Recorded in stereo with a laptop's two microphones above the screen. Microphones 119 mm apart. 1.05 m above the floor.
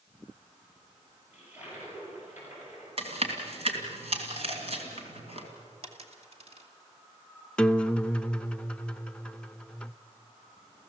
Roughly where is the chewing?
Right.